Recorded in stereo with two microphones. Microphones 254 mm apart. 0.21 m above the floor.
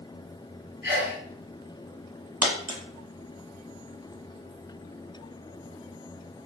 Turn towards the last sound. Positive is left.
turn(degrees=-85)